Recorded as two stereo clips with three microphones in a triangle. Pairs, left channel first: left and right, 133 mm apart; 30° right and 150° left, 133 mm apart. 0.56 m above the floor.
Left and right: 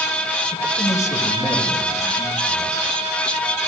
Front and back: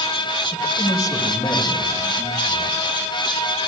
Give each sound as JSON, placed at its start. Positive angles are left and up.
{"t": 0.5, "sound": "a man speaking", "azimuth_deg": 20, "distance_m": 2.0}